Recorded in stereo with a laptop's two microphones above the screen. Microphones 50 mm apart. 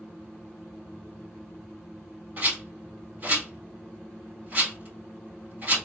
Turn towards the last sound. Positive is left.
turn(degrees=-40)  # may be behind; listen again after turning